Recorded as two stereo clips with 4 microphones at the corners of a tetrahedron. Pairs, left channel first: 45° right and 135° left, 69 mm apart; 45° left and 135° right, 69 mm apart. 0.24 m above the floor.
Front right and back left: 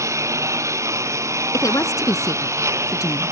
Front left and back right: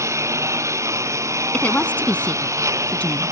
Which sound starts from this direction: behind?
A lawn mower, at 0.0 s.